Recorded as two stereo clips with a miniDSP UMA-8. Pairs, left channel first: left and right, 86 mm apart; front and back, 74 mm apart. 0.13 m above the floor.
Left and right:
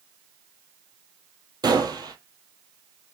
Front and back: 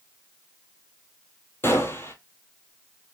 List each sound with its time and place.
1.6 s a gunshot: 55° right, 0.9 m